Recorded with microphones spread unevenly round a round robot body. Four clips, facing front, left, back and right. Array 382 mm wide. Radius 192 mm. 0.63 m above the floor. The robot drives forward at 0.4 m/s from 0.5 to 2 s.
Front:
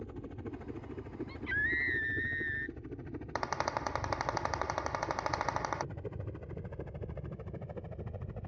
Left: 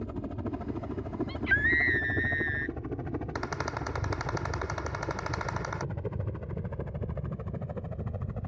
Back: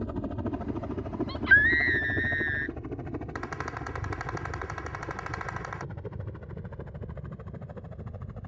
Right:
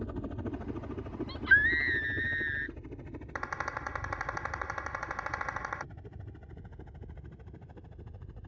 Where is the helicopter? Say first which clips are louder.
Left 2 dB, back 10 dB; 165° left; by 8.5 s 90° left.